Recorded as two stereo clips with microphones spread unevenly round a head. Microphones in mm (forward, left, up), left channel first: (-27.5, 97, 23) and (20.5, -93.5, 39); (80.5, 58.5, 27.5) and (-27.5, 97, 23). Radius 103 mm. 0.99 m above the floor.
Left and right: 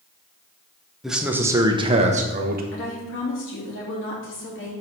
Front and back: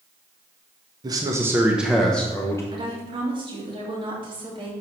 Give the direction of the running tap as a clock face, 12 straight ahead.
No running tap in this recording.